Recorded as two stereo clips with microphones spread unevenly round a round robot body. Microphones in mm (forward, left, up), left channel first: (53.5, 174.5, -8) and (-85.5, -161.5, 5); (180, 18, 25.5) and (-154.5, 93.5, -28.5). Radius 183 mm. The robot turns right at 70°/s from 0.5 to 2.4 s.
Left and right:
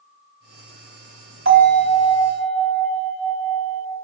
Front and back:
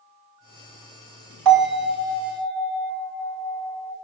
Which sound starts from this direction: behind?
A bell, at 1.4 s.